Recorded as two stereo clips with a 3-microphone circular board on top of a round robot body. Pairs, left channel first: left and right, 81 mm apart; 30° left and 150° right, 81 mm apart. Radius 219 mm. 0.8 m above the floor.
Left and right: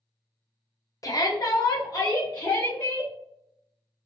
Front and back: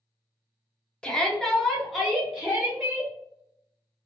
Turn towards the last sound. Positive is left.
turn(degrees=130)